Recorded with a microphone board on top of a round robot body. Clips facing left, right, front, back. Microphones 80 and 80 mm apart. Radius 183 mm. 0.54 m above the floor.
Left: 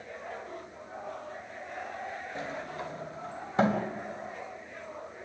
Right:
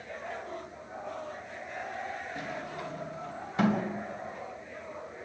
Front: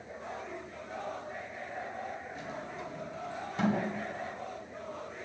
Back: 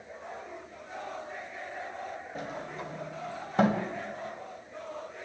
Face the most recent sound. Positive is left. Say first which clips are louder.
# left 1 dB, back 3 dB
turn(degrees=145)